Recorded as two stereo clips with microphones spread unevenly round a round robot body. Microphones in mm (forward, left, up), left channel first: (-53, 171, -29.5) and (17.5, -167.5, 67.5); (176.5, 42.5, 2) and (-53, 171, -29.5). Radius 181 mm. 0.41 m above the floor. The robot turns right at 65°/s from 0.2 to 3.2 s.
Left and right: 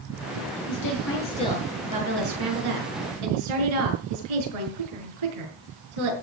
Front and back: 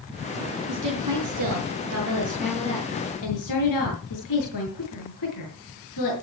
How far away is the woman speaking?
About 6.5 m.